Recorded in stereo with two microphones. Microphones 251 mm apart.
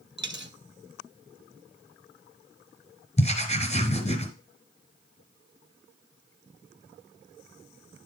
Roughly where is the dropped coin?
Right.